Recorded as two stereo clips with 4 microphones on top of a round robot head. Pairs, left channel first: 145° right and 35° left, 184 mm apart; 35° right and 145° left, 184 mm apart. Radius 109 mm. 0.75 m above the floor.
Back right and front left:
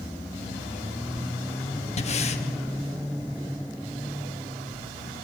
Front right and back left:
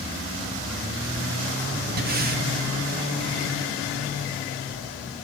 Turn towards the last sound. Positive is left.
turn(degrees=170)